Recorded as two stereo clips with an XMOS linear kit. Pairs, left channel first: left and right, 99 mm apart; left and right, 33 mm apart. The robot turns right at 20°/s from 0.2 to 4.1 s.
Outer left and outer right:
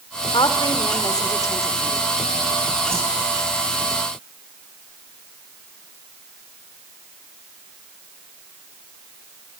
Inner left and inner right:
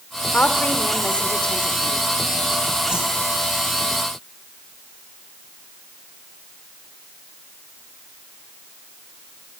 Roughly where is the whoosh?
Right.